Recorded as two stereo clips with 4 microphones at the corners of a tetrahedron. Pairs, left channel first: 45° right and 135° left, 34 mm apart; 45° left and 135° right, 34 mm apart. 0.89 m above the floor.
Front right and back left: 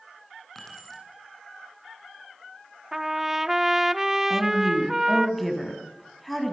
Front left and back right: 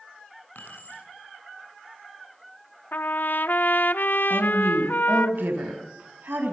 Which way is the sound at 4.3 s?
135° right.